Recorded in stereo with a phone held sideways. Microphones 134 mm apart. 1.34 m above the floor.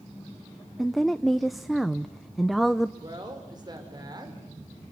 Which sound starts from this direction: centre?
A woman speaking, at 0.8 s.